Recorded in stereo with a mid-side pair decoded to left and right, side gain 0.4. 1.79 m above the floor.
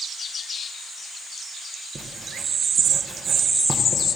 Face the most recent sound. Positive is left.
turn(degrees=-40)